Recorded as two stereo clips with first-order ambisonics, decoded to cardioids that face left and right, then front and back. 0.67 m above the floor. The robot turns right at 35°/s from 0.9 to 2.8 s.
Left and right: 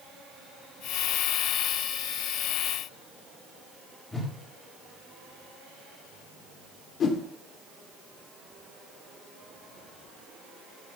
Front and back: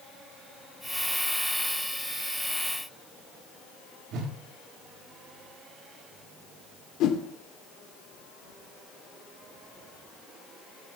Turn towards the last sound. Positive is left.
turn(degrees=35)